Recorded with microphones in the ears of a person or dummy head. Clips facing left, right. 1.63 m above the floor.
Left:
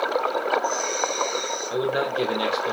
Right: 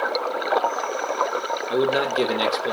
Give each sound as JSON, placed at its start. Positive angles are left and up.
{"t": 1.7, "sound": "a man speaking", "side_deg": -30, "distance_m": 0.9}